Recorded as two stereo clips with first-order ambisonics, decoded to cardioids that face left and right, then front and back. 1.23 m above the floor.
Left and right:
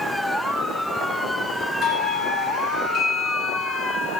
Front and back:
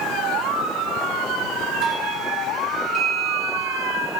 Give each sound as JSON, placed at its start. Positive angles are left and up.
{"t": 1.8, "sound": "a doorbell", "azimuth_deg": 130, "distance_m": 2.0}